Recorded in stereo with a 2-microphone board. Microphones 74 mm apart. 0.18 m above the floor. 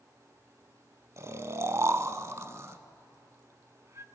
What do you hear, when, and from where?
1.2 s snoring: 40° right (ahead or behind), 0.8 m